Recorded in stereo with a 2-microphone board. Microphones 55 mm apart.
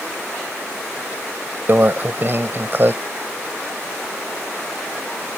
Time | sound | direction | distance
1.7 | a microwave | 45° right (ahead or behind) | ?